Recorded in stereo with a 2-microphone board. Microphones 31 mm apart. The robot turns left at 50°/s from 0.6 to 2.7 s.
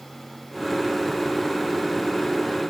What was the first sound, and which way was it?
Only background noise.